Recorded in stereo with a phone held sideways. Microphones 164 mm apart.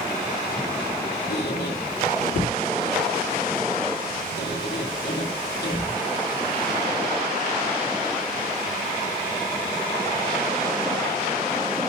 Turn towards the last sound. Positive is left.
turn(degrees=75)  # may be behind; listen again after turning